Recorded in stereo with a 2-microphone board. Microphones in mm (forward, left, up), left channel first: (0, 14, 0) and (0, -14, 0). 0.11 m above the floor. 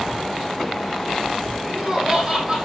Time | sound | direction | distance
1.6 | laughter | 35° right (ahead or behind) | 3.5 m